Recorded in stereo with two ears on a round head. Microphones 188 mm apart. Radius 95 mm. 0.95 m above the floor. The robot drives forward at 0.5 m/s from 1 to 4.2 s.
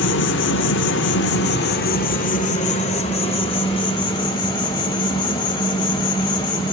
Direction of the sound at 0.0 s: 60° left (ahead or behind).